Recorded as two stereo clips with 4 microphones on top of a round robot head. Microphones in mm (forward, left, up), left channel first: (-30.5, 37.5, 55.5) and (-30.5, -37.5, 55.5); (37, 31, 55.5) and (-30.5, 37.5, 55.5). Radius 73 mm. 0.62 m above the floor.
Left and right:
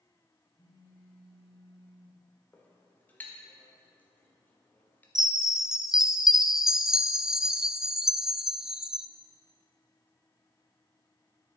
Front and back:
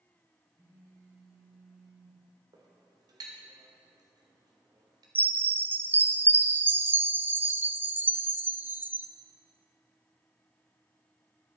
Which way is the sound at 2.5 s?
155° left.